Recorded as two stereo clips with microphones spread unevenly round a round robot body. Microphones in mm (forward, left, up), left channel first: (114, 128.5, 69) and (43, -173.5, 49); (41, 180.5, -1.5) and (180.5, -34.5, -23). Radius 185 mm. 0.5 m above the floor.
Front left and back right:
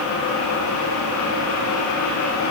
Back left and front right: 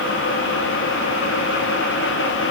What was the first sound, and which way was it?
Only background noise.